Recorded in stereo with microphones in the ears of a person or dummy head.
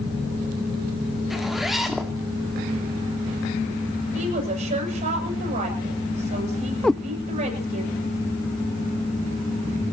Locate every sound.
1.3 s a zipper: centre (ahead or behind), 2.0 m
4.1 s a woman speaking: 40° right (ahead or behind), 8 m
6.8 s a cat meowing: 5° left (ahead or behind), 0.5 m